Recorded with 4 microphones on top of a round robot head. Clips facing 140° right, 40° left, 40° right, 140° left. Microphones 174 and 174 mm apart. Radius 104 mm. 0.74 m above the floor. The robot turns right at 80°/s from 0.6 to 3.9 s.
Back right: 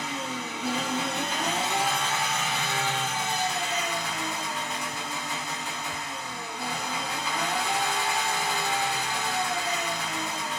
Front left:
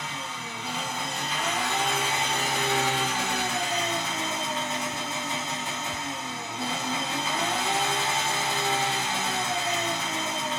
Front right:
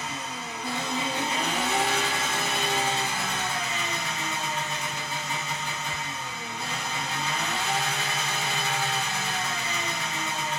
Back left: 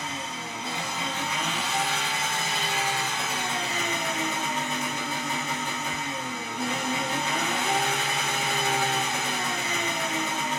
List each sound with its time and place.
0.0 s an engine running: 160° right, 1.3 m; by 10.6 s 105° left, 1.3 m